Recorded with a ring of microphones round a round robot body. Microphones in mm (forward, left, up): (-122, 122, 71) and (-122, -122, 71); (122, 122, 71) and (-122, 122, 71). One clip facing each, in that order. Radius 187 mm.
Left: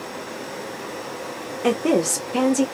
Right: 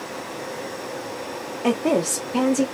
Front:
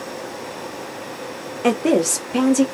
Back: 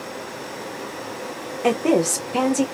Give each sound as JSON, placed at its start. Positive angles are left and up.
{"t": 1.6, "sound": "a woman speaking", "azimuth_deg": 50, "distance_m": 0.8}